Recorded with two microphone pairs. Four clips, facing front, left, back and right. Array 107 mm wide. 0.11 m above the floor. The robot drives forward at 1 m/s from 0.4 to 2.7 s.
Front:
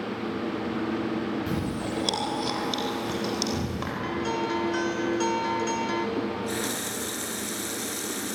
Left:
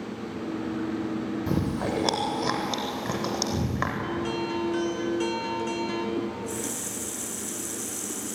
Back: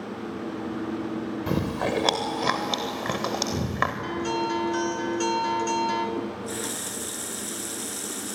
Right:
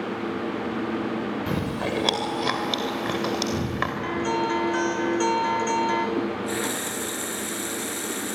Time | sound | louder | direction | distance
1.5 | chewing | even, back 3 dB | 170° right | 2.5 m
4.0 | a guitar | right 4 dB, back 1 dB | 70° right | 1.2 m
6.2 | a running tap | right 4 dB, front 2 dB | 70° right | 0.9 m